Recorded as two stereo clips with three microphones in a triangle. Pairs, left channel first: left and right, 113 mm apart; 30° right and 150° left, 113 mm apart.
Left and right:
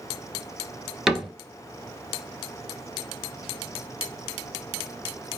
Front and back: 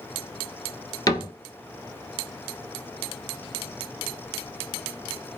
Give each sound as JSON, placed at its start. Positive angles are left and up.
{"t": 1.1, "sound": "a cupboard door", "azimuth_deg": -5, "distance_m": 0.5}